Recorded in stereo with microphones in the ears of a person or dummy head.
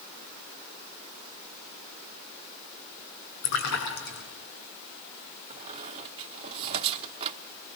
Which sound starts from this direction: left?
A splash, at 3.4 s.